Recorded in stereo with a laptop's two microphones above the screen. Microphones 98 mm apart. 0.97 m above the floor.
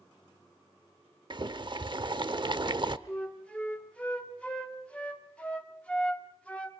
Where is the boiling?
50° right (ahead or behind), 0.8 m.